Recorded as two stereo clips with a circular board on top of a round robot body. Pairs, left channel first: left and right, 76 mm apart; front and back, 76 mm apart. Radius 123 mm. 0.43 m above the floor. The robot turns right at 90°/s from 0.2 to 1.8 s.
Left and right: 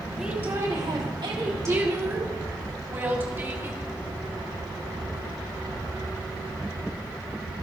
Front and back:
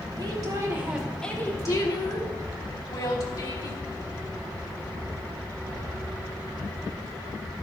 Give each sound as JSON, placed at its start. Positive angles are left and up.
{"t": 0.2, "sound": "a woman speaking", "azimuth_deg": -175, "distance_m": 3.5}